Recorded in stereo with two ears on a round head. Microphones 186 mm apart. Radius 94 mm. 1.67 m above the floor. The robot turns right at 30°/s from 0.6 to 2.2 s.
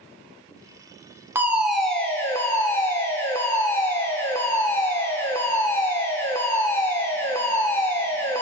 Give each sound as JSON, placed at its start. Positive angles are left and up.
{"t": 1.4, "sound": "a fire alarm", "side_deg": -10, "distance_m": 1.2}